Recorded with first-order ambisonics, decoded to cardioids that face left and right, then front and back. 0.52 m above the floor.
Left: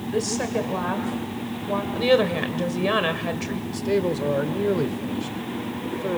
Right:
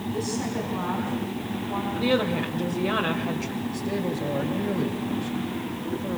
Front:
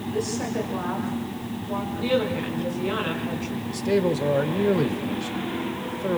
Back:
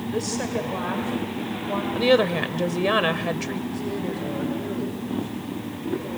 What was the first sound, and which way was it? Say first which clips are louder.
A woman speaking: left 6 dB, even; 115° left.